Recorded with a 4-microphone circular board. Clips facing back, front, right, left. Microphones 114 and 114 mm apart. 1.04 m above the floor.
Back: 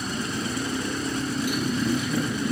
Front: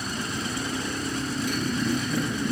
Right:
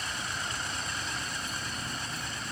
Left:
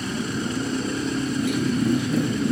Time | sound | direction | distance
0.0 | a motorcycle | 100° left | ?